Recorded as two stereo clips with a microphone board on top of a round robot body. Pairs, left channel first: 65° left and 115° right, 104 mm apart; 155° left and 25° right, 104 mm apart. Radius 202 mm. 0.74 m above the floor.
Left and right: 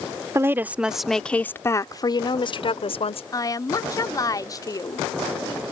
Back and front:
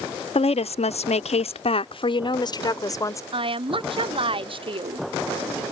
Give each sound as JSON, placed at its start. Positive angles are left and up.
{"t": 0.3, "sound": "a woman speaking", "azimuth_deg": 180}
{"t": 3.3, "sound": "a woman speaking", "azimuth_deg": 10}